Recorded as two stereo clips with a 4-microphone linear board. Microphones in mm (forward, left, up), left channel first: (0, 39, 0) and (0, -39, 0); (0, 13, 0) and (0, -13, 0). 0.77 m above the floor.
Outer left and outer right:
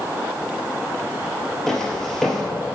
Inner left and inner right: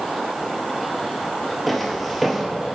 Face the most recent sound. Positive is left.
turn(degrees=0)  # may be behind; listen again after turning